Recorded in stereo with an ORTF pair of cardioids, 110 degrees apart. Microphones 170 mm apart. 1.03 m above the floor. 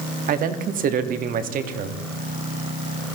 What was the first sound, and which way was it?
A man speaking, 55° right.